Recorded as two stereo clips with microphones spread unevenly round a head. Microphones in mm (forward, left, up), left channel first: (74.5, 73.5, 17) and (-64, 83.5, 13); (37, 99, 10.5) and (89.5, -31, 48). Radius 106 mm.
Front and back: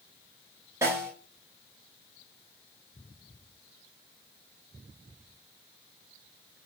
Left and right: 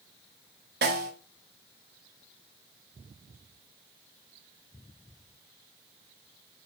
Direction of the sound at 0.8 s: 105° right.